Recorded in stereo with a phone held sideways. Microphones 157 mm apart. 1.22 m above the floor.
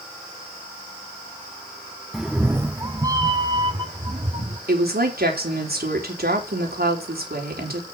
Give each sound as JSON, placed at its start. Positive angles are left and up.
{"t": 2.1, "sound": "a cat meowing", "side_deg": 0, "distance_m": 0.6}
{"t": 4.7, "sound": "a woman speaking", "side_deg": -75, "distance_m": 4.0}